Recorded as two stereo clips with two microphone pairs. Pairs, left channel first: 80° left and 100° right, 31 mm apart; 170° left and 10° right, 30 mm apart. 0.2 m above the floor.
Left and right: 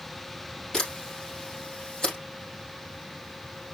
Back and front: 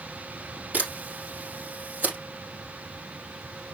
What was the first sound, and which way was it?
A camera shutter, 10° left.